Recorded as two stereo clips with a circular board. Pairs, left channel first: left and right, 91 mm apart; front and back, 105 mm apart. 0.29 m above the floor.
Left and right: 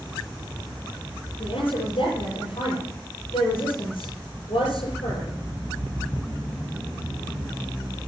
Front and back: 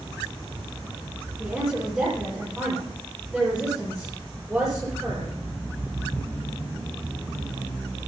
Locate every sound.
1.4 s a woman speaking: 95° left, 8 m